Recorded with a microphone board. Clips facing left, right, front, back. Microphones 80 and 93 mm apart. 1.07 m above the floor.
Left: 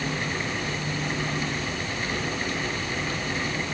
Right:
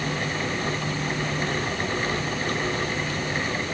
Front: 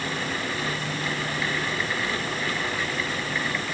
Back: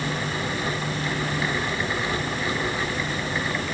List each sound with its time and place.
Only background noise.